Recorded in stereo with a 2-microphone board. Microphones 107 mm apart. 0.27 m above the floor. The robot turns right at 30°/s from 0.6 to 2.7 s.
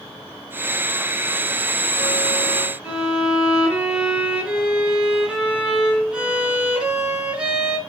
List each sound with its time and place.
2.8 s a violin: 10° right (ahead or behind), 3.5 m